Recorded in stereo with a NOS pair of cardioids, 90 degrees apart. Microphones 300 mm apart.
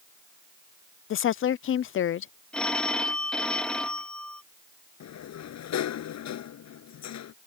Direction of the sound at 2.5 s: 5° left.